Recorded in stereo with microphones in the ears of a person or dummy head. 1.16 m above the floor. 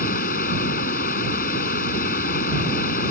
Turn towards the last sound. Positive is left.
turn(degrees=55)  # may be behind; listen again after turning